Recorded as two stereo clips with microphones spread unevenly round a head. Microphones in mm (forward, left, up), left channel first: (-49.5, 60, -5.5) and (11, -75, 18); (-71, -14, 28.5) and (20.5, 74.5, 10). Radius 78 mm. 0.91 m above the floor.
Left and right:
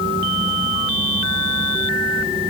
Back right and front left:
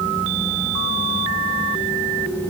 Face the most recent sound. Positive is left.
No sound to turn to.